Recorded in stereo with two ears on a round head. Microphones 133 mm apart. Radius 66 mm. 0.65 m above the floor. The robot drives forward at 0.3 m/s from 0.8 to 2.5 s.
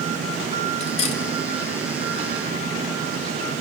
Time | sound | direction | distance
0.8 | cutlery clinking | 45° left (ahead or behind) | 1.8 m